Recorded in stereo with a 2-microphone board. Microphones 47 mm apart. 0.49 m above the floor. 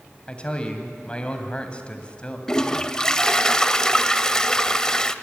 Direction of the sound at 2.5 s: 15° left (ahead or behind).